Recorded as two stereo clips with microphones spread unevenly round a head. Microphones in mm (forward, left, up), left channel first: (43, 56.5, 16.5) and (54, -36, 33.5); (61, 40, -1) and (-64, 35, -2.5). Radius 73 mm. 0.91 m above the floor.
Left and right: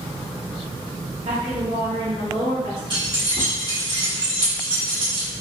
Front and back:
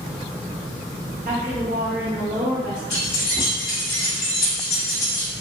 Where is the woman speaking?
140° right, 0.8 m.